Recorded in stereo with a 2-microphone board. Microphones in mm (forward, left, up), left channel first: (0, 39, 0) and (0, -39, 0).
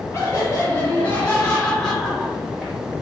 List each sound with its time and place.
0.1 s laughter: 30° left (ahead or behind), 1.7 m; by 2.8 s 15° right (ahead or behind), 1.7 m